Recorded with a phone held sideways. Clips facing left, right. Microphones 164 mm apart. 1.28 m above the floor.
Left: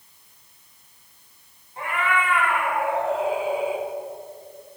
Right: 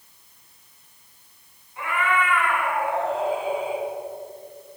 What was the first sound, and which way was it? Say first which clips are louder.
A cat meowing: right 1 dB; 35° left (ahead or behind).